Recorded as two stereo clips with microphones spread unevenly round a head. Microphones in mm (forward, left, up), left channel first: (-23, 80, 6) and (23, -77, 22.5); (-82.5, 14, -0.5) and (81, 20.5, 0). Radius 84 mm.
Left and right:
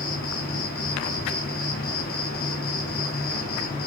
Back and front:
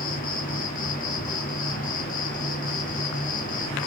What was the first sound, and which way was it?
An insect, 145° left.